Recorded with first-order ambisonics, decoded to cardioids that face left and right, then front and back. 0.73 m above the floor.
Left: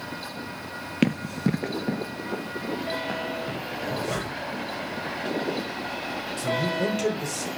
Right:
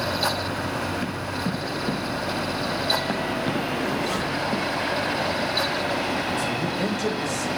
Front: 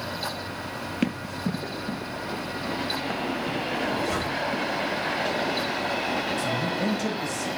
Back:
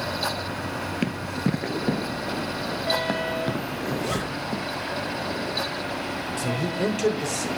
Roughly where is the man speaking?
Behind.